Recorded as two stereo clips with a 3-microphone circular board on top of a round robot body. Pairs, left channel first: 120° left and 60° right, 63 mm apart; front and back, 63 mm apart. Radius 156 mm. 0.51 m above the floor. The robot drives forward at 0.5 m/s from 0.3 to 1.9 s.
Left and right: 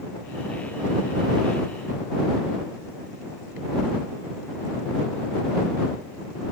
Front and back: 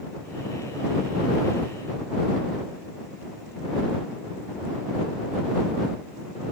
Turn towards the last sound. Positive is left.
No sound to turn to.